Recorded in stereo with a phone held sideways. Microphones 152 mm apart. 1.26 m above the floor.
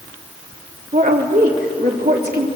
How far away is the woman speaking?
About 3 m.